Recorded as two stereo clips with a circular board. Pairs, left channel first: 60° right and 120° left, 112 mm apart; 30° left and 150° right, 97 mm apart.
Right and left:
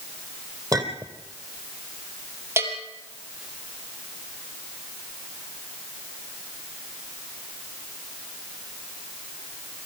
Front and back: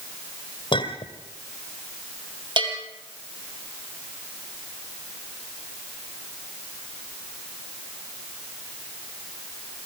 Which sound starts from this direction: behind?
A bell, at 2.6 s.